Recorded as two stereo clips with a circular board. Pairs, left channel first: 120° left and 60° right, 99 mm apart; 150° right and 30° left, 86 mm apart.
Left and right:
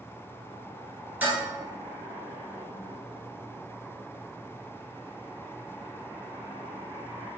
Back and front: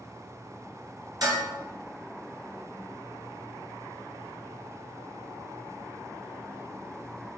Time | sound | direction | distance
1.2 | dishes clattering | 5° left | 1.4 m